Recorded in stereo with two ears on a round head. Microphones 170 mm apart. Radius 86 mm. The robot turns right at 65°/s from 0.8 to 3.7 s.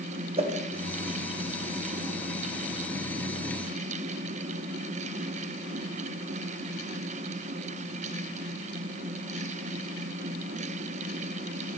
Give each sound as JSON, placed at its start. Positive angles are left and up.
{"t": 0.4, "sound": "a whoosh", "side_deg": -35, "distance_m": 0.7}